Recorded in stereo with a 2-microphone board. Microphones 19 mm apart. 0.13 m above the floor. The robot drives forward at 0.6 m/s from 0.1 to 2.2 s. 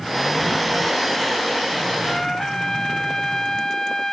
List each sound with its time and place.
2.0 s a trumpet: 25° left (ahead or behind)